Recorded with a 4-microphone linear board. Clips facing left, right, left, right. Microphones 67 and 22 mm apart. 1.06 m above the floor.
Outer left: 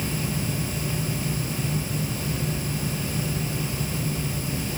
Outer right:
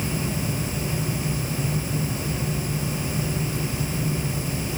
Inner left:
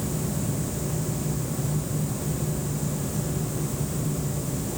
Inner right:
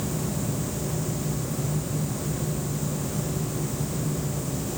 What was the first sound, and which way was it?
Only background noise.